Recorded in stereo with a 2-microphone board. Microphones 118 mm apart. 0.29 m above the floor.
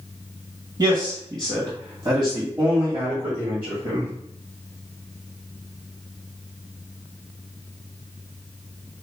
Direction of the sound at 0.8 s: 35° right (ahead or behind).